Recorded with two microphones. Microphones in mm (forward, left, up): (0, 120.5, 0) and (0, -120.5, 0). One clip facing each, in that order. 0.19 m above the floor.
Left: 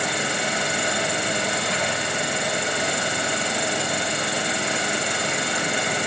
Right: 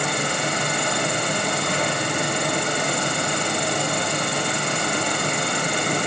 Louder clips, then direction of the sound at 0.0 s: Right 2 dB; 55° right (ahead or behind).